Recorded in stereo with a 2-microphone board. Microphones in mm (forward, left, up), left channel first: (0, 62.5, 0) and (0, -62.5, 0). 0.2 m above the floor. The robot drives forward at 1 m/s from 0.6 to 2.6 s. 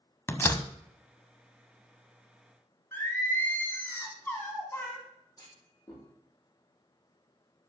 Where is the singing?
15° left (ahead or behind), 2 m.